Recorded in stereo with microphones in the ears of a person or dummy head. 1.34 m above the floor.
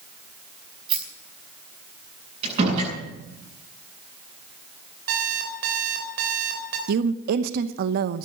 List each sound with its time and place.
0.9 s a rattle: 25° right (ahead or behind), 5 m
2.4 s a door slam: 30° right (ahead or behind), 9.5 m
5.1 s an alarm clock: 55° right (ahead or behind), 3.5 m
6.9 s a woman speaking: 55° right (ahead or behind), 0.9 m